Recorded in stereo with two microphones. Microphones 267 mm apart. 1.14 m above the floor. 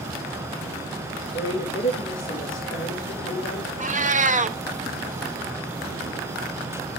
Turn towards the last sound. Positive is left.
turn(degrees=-30)  # may be behind; listen again after turning